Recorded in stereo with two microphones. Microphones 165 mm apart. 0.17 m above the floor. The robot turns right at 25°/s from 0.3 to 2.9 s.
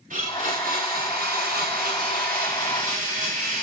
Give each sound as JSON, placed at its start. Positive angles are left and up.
{"t": 0.1, "sound": "a blender", "azimuth_deg": -120, "distance_m": 9.5}